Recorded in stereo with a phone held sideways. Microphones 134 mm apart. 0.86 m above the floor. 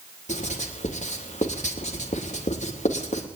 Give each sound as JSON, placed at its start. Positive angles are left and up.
{"t": 0.3, "sound": "writing", "side_deg": 65, "distance_m": 2.5}